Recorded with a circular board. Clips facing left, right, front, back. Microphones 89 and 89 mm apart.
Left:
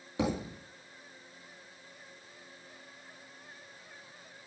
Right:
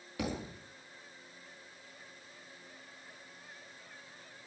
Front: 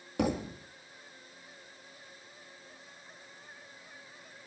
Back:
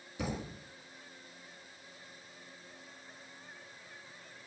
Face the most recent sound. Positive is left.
turn(degrees=25)